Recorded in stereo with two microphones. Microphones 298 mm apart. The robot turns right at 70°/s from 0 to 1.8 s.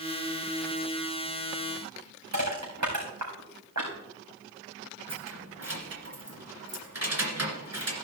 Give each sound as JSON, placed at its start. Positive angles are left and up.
{"t": 2.3, "sound": "crushing", "side_deg": -65, "distance_m": 5.0}
{"t": 5.1, "sound": "keys jangling", "side_deg": -55, "distance_m": 2.0}